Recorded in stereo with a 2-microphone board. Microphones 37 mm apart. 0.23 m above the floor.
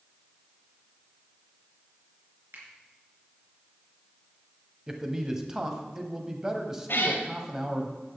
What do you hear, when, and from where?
2.5 s a finger snap: 70° right (ahead or behind), 4 m
4.9 s a man speaking: 15° right (ahead or behind), 1.2 m
6.9 s a cat meowing: 65° left (ahead or behind), 1.6 m